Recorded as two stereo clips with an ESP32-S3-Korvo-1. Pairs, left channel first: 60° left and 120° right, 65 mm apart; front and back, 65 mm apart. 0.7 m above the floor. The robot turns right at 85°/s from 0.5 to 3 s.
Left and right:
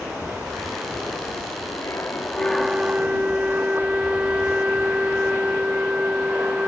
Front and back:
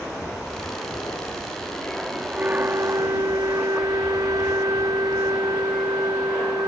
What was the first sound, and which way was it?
An aircraft, 70° right.